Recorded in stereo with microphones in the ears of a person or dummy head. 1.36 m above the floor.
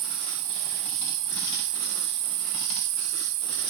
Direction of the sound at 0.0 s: 45° right (ahead or behind).